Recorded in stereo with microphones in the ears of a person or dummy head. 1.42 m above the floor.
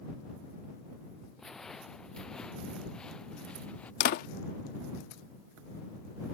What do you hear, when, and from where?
1.4 s footsteps: 5° left (ahead or behind); by 3.9 s 10° left (ahead or behind)
4.0 s a door slam: 60° left (ahead or behind)